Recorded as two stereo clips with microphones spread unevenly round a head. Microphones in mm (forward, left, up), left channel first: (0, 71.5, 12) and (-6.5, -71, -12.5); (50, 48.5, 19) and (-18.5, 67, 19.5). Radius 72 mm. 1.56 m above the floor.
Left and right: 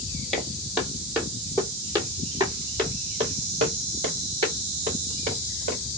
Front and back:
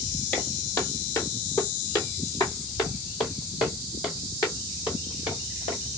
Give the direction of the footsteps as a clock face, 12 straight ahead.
11 o'clock.